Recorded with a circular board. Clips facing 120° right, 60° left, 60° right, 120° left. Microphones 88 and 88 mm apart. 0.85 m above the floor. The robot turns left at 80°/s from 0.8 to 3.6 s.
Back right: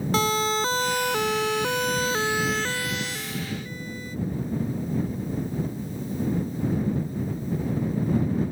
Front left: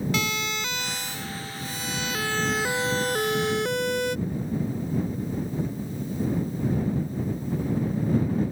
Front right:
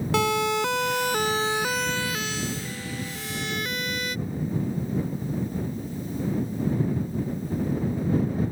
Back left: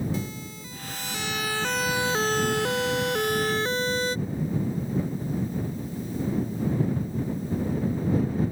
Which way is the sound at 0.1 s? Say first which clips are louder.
Back right 6 dB, front right 12 dB; 65° right.